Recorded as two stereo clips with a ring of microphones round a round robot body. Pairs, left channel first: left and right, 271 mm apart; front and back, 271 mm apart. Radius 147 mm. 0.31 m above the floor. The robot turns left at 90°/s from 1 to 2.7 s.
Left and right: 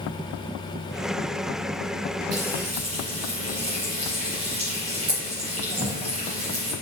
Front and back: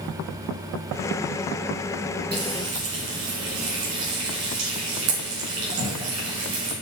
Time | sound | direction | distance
2.3 | frying | 125° right | 3.5 m